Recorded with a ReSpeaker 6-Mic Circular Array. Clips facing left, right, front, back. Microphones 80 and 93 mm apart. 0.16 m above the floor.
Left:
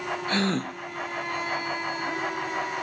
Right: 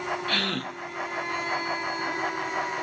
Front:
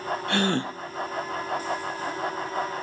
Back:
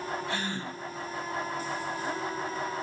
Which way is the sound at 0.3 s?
20° left.